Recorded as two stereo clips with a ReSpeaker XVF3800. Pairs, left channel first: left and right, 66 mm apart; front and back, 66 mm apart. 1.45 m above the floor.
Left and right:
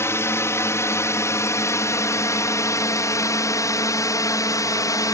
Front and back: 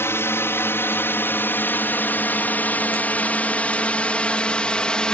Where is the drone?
45° left; by 5.1 s 75° left.